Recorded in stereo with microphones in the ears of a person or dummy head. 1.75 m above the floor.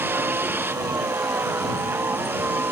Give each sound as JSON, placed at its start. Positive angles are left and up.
{"t": 0.0, "sound": "a vehicle", "side_deg": -10}